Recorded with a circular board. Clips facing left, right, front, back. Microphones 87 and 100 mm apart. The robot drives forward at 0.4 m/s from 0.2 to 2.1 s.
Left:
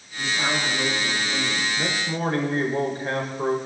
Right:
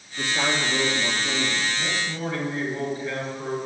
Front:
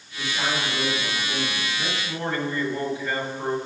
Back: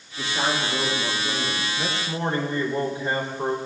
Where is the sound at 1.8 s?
125° left, 5 m.